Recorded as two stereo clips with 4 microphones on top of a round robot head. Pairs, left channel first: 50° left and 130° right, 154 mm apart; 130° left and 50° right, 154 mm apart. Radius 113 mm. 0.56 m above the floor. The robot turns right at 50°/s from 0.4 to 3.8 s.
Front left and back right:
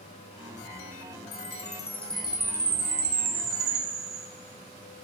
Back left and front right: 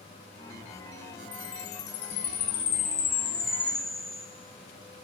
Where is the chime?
95° left, 2 m; by 4.3 s 140° right, 2 m.